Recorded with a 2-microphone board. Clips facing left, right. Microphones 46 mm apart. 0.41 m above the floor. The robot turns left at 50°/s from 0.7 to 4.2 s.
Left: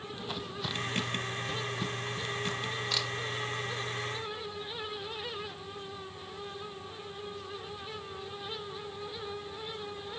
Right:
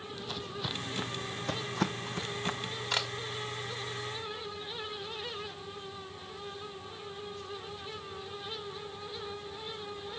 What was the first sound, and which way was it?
Footsteps, 20° left (ahead or behind).